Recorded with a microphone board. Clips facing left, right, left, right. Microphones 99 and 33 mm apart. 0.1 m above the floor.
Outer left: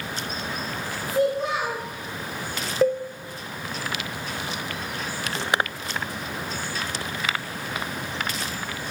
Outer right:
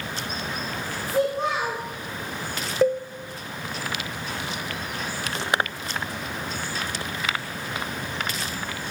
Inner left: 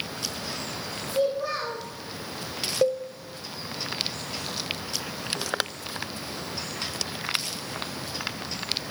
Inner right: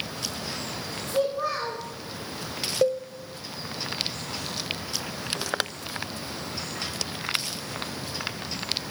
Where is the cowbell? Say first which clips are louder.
Even, even; centre (ahead or behind), 0.6 m.